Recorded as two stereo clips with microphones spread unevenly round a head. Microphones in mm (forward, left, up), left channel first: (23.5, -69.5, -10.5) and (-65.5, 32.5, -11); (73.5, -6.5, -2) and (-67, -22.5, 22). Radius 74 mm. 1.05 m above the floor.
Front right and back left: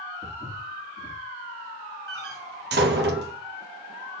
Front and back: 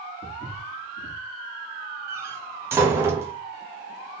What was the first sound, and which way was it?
Footsteps, 65° left.